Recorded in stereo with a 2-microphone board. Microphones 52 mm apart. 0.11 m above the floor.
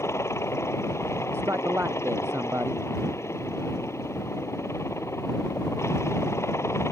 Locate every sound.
0.0 s a helicopter: 60° left (ahead or behind)
1.3 s a man speaking: 55° right (ahead or behind)